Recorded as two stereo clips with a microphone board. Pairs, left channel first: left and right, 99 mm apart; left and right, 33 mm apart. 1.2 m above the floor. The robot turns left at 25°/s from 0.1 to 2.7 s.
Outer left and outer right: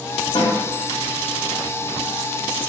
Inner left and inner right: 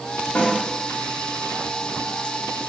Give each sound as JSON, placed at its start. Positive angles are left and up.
{"t": 0.3, "sound": "a snare drum", "side_deg": 55, "distance_m": 1.0}